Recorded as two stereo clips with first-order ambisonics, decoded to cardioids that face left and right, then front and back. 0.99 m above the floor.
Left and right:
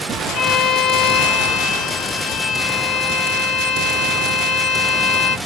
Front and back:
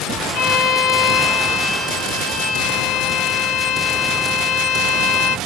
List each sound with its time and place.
0.3 s a violin: 40° left, 5 m